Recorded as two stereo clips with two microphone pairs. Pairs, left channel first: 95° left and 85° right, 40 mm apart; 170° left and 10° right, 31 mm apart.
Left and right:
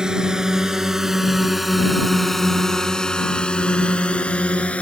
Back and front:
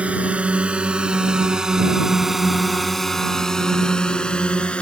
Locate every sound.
0.0 s a drone: 20° right; by 4.8 s 135° left